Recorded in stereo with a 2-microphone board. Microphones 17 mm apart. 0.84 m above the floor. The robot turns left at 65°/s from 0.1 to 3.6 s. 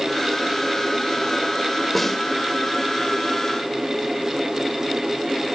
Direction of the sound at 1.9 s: 10° left (ahead or behind).